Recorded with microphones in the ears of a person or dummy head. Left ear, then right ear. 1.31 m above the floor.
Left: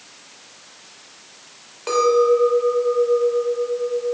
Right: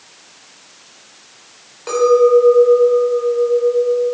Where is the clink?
10° left (ahead or behind), 3 m.